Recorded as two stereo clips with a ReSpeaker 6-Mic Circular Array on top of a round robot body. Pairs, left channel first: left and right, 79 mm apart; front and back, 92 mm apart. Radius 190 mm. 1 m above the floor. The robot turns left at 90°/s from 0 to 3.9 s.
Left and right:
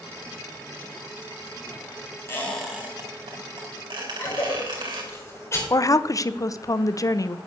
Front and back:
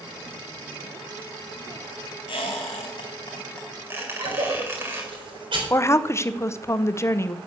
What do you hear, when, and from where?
2.3 s a squeak: 30° left, 4.5 m; by 5.2 s 115° right, 4.5 m
4.2 s a cough: 150° left, 7 m
5.7 s a woman speaking: 55° left, 0.9 m